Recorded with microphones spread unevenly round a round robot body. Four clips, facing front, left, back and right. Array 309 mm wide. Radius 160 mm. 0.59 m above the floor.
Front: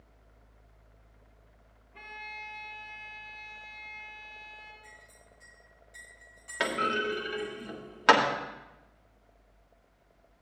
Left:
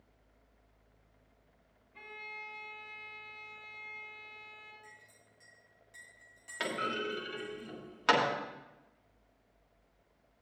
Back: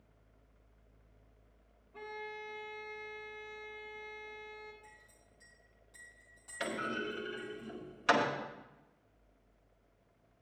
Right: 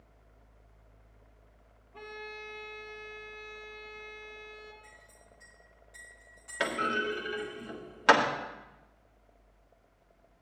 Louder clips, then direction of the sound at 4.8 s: Right 2 dB, front 5 dB; 150° left.